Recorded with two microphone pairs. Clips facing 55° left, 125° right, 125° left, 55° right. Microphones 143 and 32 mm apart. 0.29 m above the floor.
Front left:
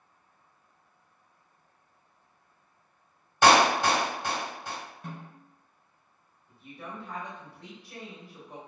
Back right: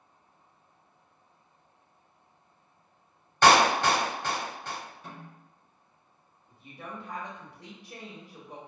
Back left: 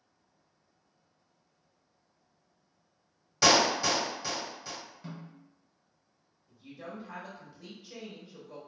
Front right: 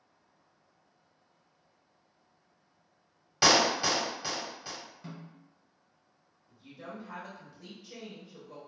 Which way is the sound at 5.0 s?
30° left.